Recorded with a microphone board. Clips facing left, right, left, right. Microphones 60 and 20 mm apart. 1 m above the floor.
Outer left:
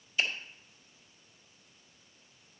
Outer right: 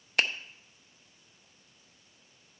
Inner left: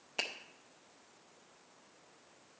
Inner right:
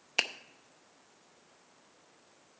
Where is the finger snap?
75° right (ahead or behind), 0.6 m.